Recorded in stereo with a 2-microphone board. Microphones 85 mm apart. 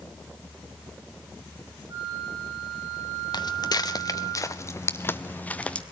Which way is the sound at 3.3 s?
55° left (ahead or behind).